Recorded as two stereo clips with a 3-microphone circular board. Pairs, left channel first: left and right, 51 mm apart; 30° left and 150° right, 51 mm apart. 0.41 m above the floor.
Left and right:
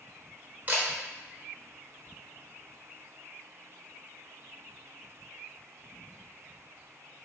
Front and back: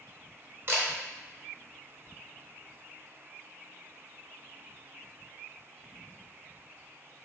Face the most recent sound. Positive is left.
turn(degrees=-135)